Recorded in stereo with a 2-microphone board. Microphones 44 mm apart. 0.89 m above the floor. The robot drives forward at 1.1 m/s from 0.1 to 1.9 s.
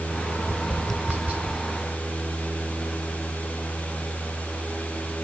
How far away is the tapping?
About 2.5 m.